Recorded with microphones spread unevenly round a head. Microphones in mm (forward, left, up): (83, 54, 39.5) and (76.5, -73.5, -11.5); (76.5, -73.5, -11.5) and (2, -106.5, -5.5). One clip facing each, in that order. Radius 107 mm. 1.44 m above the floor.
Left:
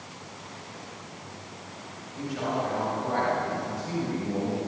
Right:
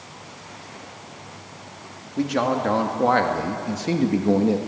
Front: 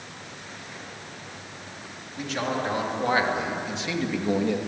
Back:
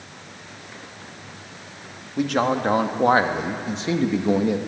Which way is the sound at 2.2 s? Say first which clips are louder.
Right 8 dB, back 7 dB; 130° right.